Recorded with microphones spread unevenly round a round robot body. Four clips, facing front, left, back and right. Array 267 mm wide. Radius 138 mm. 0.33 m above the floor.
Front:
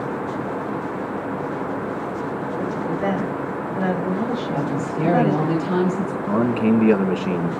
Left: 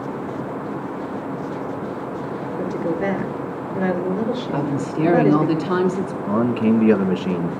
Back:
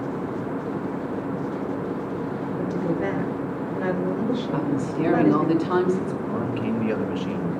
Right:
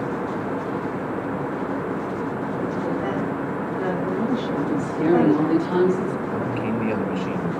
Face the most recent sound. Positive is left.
turn(degrees=55)